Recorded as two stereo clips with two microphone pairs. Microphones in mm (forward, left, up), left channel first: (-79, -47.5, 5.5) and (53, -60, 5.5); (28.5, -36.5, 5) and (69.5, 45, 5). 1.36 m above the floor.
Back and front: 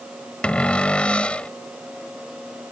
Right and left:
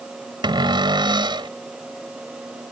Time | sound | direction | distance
0.4 | a cupboard door | 95° left | ?